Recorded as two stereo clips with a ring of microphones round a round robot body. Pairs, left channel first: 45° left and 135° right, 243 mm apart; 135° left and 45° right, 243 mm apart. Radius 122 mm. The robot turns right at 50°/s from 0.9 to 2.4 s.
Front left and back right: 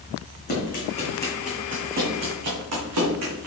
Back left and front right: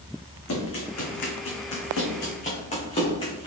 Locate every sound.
0.5 s running footsteps: 100° left, 2.5 m; by 3.5 s 155° right, 3 m